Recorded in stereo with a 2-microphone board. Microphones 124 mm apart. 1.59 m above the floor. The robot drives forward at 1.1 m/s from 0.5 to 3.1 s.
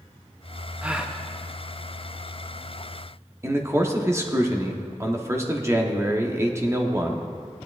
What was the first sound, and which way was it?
A gasp, 10° right (ahead or behind).